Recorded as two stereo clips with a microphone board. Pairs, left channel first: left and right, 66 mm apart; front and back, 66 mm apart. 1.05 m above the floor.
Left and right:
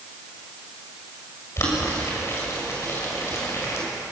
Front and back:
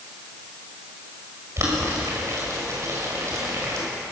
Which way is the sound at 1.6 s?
135° left.